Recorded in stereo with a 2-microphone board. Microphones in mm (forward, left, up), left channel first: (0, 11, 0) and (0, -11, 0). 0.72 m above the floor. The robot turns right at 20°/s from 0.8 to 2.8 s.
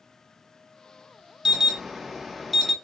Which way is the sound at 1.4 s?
25° right (ahead or behind).